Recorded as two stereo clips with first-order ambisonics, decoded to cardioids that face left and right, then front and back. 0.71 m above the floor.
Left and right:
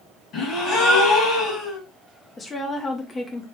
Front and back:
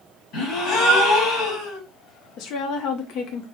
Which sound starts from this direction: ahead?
A woman speaking, at 2.4 s.